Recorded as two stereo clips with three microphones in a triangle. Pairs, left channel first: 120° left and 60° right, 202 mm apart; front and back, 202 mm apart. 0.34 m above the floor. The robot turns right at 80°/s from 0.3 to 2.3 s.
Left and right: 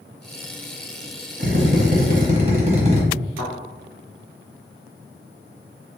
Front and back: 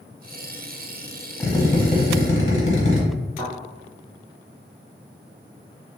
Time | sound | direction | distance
1.4 | a drill | 75° right | 1.0 m
3.4 | a thud | 60° left | 1.5 m